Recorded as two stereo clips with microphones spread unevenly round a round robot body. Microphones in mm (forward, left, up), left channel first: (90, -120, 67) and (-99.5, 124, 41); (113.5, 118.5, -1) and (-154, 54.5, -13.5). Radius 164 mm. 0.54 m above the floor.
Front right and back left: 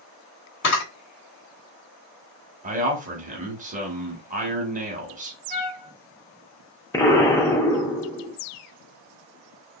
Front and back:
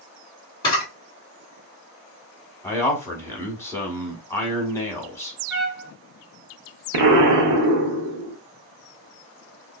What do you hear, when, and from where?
0.6 s a camera shutter: 55° right, 1.5 m
2.6 s a man speaking: 90° left, 1.1 m
5.5 s a trumpet: 85° right, 1.5 m
6.9 s an explosion: 135° right, 0.5 m